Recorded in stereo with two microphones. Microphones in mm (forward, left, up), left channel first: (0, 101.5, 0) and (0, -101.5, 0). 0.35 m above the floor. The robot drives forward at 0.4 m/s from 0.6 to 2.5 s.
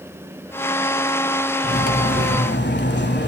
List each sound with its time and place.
1.6 s cutlery clinking: 55° left (ahead or behind), 1.4 m; by 3.3 s 65° left (ahead or behind), 1.3 m